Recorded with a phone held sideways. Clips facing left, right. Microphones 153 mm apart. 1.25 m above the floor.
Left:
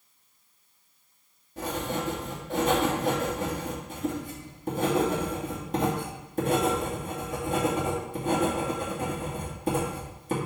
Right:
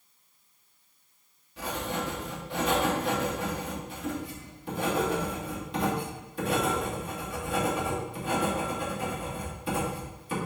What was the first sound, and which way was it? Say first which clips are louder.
Writing: left 2 dB; 45° left (ahead or behind).